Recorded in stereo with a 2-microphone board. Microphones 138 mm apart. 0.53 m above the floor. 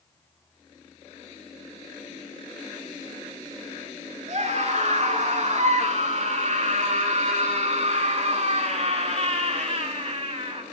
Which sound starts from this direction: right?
A scream, at 4.3 s.